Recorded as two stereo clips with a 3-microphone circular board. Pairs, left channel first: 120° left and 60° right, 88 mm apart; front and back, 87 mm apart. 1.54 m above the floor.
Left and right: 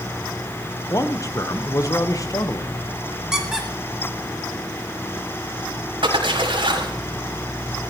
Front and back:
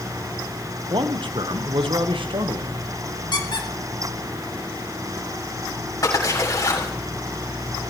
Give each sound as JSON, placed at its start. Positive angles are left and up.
{"t": 0.9, "sound": "a man speaking", "azimuth_deg": 170, "distance_m": 1.0}
{"t": 3.3, "sound": "a squeak", "azimuth_deg": 25, "distance_m": 2.5}
{"t": 6.0, "sound": "a splash", "azimuth_deg": -45, "distance_m": 5.5}